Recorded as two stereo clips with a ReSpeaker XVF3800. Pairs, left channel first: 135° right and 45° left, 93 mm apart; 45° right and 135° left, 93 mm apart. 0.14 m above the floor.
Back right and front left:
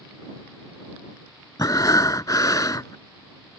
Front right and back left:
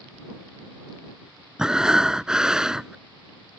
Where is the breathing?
145° right.